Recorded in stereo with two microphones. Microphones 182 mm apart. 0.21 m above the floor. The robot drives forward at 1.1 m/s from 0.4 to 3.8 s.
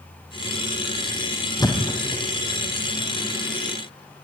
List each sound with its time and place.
1.6 s a thud: 20° left (ahead or behind), 2.5 m; by 2.2 s 15° left (ahead or behind), 3 m